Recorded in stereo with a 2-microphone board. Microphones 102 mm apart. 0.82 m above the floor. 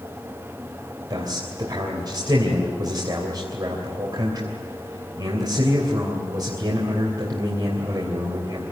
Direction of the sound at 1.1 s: 45° right (ahead or behind).